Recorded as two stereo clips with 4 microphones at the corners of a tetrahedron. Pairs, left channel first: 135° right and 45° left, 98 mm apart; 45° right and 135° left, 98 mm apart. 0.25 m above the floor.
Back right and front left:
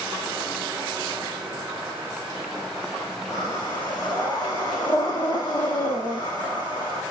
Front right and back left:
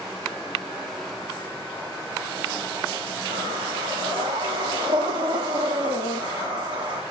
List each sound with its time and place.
3.3 s breathing: 165° left, 5.5 m